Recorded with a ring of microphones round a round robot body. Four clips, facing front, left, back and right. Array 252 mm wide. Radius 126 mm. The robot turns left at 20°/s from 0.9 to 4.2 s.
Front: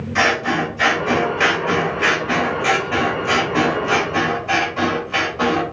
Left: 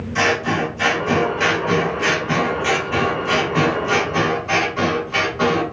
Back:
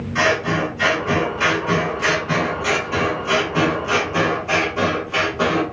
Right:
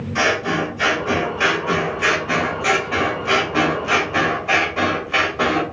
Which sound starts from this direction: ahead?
Scissors, at 0.1 s.